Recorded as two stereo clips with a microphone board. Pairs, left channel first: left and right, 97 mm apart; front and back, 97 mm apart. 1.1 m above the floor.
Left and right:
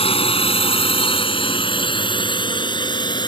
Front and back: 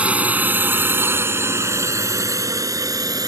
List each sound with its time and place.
0.0 s a drone: 105° left; by 3.3 s 130° left